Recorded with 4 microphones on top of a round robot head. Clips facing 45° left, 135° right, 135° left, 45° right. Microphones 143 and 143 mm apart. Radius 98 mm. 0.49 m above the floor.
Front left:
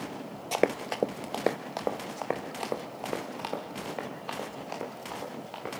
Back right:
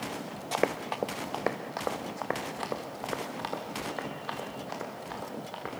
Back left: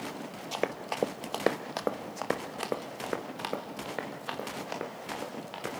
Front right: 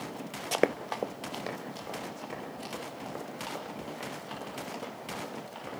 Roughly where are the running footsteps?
Ahead right.